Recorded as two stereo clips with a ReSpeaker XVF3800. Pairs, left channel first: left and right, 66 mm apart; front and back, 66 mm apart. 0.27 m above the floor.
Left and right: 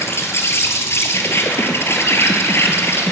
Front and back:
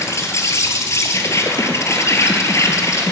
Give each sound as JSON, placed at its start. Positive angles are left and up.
{"t": 0.0, "sound": "an insect", "azimuth_deg": 40, "distance_m": 1.4}